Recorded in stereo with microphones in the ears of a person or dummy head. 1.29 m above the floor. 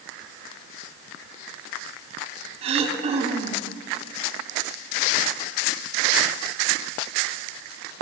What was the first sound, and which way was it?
Throat clearing, 30° right (ahead or behind).